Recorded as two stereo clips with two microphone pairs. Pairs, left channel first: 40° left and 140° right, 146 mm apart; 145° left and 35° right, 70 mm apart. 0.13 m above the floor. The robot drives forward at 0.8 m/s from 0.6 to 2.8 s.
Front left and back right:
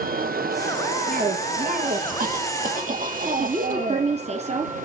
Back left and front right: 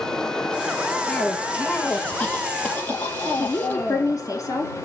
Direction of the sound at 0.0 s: 140° right.